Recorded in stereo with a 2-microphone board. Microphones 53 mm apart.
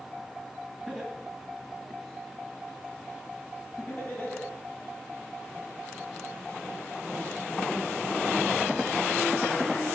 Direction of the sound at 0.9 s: Centre (ahead or behind).